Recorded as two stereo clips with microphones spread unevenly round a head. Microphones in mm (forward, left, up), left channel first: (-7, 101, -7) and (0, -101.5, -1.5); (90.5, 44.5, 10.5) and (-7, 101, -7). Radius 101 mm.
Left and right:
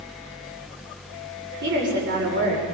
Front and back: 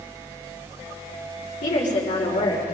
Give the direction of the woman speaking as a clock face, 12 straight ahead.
2 o'clock.